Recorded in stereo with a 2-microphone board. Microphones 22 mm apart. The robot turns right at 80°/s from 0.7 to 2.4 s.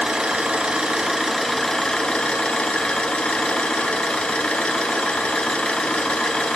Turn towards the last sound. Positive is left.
turn(degrees=70)